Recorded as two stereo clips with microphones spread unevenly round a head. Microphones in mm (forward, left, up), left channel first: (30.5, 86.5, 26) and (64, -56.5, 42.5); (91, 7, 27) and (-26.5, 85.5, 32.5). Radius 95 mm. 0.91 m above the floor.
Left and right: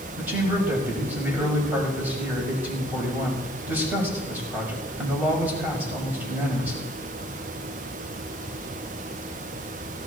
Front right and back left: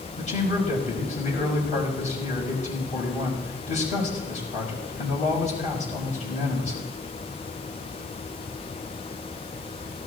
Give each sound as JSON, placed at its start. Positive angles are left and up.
{"t": 0.2, "sound": "a man speaking", "azimuth_deg": 0, "distance_m": 6.5}